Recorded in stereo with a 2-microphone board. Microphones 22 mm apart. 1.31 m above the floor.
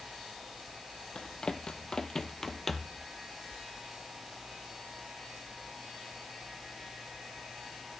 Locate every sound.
1.1 s running footsteps: 45° left (ahead or behind), 1.9 m; by 3.0 s 5° left (ahead or behind), 1.5 m